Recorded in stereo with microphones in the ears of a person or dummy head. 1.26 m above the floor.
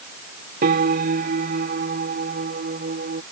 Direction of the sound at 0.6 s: 55° right (ahead or behind).